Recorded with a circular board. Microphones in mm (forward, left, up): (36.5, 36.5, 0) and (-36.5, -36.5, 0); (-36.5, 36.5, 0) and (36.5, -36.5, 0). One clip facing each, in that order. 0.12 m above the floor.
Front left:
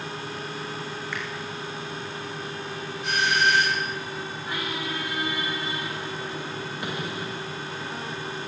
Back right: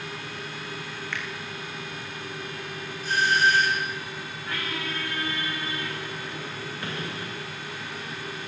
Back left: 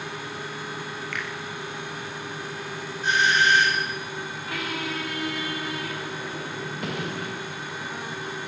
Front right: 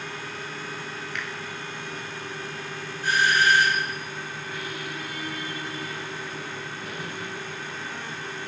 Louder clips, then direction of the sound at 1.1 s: Even, back left 1 dB; 125° left.